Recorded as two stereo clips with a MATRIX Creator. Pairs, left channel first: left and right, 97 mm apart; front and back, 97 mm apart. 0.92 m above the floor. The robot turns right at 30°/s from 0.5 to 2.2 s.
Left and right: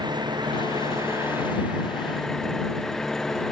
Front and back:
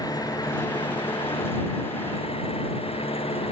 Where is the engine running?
45° right; by 3.5 s 5° left.